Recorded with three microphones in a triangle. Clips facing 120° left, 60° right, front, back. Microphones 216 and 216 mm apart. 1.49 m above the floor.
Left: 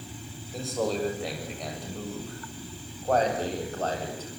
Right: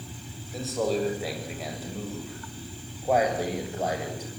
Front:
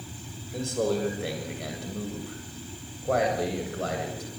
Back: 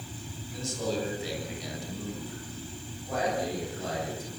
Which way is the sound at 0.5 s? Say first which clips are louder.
Right 2 dB, front 5 dB; 30° left.